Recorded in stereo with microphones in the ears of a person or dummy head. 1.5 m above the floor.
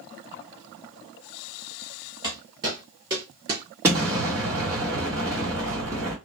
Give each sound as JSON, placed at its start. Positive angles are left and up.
{"t": 2.2, "sound": "footsteps", "side_deg": 5, "distance_m": 1.5}
{"t": 3.8, "sound": "an explosion", "side_deg": -10, "distance_m": 1.2}